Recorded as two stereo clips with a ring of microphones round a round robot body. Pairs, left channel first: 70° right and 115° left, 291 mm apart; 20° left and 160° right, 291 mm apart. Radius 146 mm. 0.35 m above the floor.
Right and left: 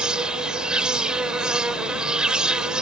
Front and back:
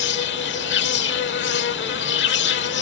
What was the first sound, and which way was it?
An insect, 25° left.